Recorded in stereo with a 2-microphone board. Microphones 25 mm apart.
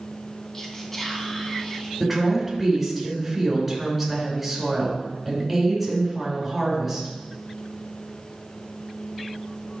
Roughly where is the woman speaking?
Centre.